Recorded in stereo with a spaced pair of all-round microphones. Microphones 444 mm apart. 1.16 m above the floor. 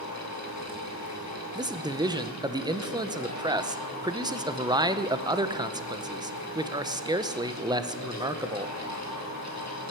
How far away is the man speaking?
About 0.5 m.